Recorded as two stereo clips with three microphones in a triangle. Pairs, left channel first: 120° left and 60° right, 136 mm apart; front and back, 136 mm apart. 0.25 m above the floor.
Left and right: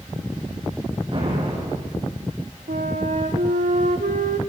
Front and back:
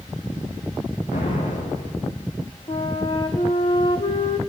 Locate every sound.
1.1 s an explosion: 10° right, 7.5 m
2.7 s a flute: 50° right, 2.5 m